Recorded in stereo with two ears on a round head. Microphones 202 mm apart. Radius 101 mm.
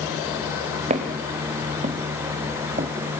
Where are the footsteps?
30° right (ahead or behind), 4 m.